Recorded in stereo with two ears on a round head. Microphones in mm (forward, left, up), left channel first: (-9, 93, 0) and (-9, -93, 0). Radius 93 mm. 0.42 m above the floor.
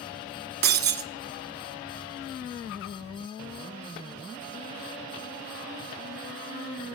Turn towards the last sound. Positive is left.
turn(degrees=-50)  # may be behind; listen again after turning